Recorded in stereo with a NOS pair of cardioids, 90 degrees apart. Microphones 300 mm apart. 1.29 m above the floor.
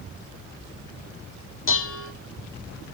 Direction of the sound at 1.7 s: 45° left.